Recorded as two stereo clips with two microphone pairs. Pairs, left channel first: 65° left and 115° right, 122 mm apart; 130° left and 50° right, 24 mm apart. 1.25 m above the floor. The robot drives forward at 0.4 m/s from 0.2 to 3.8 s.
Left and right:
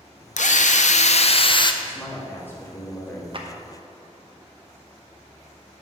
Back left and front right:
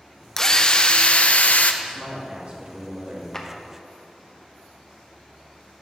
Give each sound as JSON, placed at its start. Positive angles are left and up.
{"t": 0.4, "sound": "a drill", "azimuth_deg": 60, "distance_m": 0.6}
{"t": 1.8, "sound": "a man speaking", "azimuth_deg": -10, "distance_m": 2.5}
{"t": 3.3, "sound": "a clap", "azimuth_deg": -160, "distance_m": 0.9}